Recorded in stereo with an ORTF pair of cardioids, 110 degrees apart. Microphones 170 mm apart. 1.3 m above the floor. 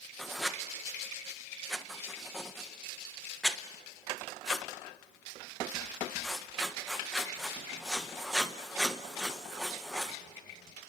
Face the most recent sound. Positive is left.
turn(degrees=0)